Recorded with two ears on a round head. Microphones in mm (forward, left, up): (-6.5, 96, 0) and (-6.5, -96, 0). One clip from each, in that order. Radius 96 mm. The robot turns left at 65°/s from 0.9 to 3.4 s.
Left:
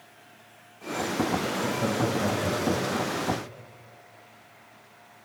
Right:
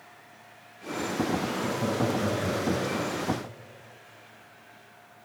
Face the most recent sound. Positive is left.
turn(degrees=-30)  # may be behind; listen again after turning